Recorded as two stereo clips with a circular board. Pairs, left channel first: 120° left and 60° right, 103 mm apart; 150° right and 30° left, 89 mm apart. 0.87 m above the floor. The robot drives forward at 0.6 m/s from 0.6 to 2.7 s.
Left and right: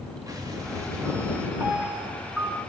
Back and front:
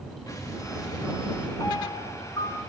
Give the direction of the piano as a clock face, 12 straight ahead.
4 o'clock.